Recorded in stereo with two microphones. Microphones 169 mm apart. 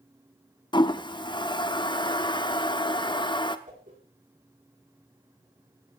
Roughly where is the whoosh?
Right.